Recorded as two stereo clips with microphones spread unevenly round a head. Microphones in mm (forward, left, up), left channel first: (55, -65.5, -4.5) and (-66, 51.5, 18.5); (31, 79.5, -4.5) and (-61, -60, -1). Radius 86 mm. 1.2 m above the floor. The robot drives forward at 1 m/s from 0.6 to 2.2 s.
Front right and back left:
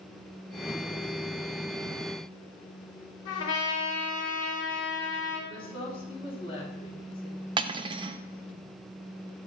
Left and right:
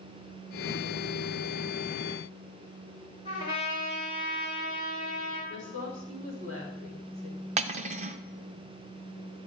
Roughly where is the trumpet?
Ahead right.